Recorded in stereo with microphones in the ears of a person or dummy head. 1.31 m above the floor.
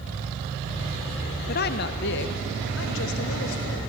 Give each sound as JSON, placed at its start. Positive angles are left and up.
{"t": 1.5, "sound": "a woman speaking", "side_deg": 45, "distance_m": 0.8}